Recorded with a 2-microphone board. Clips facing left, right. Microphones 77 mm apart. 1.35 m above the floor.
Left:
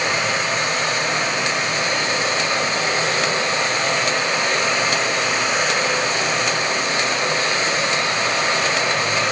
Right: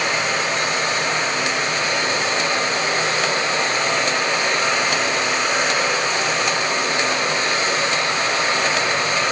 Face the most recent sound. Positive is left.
turn(degrees=5)  # may be behind; listen again after turning